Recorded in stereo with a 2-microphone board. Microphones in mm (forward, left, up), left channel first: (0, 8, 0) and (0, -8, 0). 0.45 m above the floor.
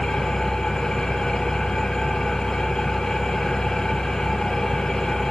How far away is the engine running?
About 4 m.